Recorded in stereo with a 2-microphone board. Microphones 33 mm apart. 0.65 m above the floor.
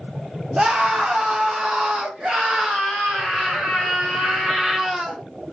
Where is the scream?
30° right (ahead or behind), 1.2 m; by 5.2 s 20° right (ahead or behind), 2.5 m.